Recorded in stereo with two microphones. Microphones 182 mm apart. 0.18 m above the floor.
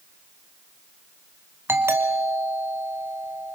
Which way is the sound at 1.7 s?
15° right (ahead or behind).